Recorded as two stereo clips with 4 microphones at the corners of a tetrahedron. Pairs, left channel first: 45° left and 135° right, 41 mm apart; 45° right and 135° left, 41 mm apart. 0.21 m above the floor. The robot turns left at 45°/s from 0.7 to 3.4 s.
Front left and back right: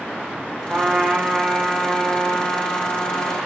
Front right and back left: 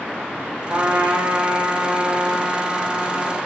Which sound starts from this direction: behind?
A trumpet, at 0.7 s.